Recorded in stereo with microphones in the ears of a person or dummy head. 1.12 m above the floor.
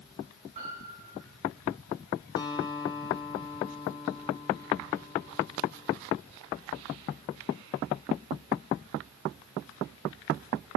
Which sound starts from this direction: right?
A piano, at 0.6 s.